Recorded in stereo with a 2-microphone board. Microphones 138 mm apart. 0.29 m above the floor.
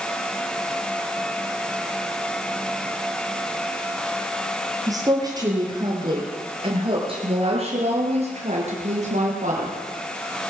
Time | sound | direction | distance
4.9 | a woman speaking | 25° right (ahead or behind) | 8 m